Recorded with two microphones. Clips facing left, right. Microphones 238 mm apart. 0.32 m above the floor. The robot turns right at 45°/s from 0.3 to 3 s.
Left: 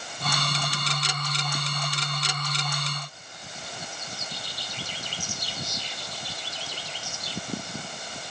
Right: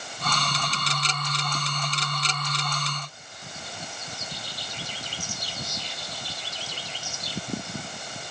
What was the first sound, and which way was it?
Only background noise.